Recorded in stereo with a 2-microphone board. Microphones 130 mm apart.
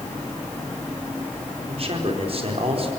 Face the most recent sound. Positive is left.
turn(degrees=-50)  # may be behind; listen again after turning